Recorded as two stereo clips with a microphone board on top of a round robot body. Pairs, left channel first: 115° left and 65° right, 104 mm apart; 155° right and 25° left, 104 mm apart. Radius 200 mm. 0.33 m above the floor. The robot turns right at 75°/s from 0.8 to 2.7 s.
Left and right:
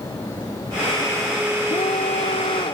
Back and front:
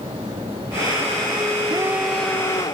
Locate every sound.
1.7 s a scream: 80° left; by 2.8 s 155° left